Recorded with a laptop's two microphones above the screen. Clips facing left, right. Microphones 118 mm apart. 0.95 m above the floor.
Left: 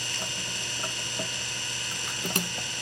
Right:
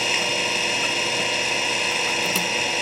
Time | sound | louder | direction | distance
0.0 | an engine running | right 13 dB | 75° right (ahead or behind) | ?